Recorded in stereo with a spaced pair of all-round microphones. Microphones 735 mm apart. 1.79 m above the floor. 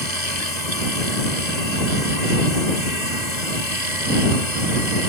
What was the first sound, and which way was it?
A machine running, 65° left (ahead or behind).